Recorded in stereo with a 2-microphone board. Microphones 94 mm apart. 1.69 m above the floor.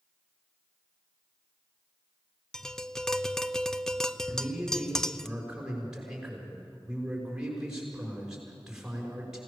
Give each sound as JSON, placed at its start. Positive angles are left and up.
{"t": 2.5, "sound": "tapping", "side_deg": 5, "distance_m": 0.6}
{"t": 4.3, "sound": "a man speaking", "side_deg": -5, "distance_m": 6.5}